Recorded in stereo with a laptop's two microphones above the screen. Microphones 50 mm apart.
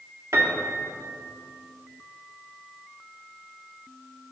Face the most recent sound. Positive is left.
turn(degrees=-65)  # may be behind; listen again after turning